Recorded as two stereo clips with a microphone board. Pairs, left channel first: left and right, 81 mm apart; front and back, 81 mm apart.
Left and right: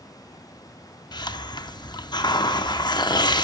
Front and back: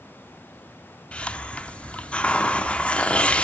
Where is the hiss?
75° left, 0.5 m.